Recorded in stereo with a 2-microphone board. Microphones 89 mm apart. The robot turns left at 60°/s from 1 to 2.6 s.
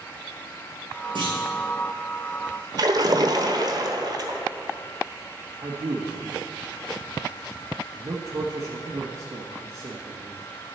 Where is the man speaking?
40° right (ahead or behind), 1.4 m.